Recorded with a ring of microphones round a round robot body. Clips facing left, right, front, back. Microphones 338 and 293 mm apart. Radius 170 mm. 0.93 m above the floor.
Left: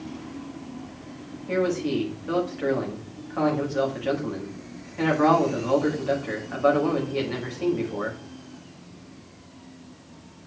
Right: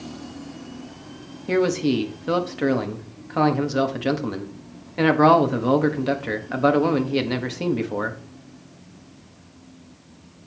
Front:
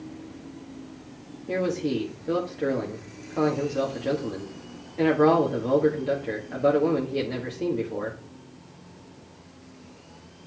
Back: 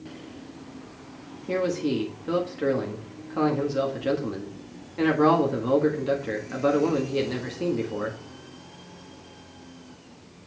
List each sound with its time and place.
1.5 s a man speaking: 105° right, 1.5 m